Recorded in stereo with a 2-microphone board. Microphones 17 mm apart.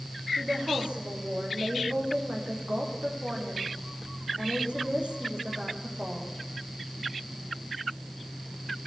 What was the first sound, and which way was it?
A woman speaking, 75° right (ahead or behind).